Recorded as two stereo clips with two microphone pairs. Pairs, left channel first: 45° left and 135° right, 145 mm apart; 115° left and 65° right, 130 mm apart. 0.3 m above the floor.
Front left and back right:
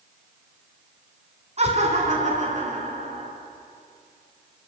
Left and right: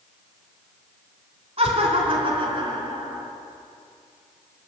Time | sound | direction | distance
1.6 | laughter | 100° right | 2.5 m